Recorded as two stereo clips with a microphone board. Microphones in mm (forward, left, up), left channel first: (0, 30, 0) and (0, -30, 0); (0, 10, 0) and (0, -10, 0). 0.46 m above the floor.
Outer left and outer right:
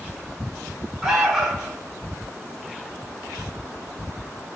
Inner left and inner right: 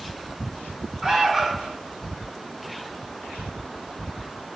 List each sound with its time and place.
1.0 s an alarm: 10° right (ahead or behind), 1.8 m